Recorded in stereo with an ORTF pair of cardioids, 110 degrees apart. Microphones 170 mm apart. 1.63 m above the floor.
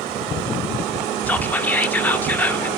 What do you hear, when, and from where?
1.3 s whispering: 10° left, 1.1 m